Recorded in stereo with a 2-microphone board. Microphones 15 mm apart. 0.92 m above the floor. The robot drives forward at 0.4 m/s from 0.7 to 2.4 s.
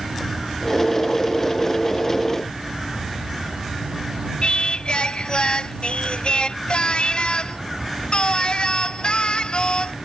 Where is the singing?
70° left (ahead or behind).